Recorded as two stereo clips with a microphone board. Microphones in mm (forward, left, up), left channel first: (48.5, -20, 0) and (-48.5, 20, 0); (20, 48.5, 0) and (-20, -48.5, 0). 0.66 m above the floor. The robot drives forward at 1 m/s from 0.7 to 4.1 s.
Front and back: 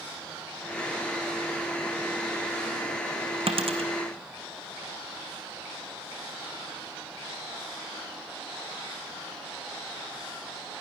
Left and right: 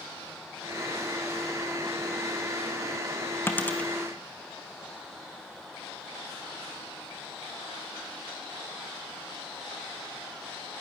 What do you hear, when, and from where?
3.5 s a dropped coin: 135° left, 1.7 m; by 3.9 s 145° left, 2 m